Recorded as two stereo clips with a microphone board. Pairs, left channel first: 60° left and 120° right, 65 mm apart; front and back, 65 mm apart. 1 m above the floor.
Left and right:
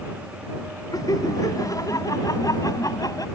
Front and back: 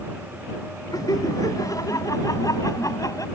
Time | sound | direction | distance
0.9 | laughter | 30° left | ?